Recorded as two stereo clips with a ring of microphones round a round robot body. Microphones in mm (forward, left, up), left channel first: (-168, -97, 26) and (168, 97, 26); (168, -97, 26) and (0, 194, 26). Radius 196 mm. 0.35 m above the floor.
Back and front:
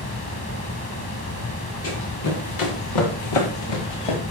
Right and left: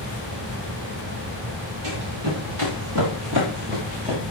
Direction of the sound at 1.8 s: 155° left.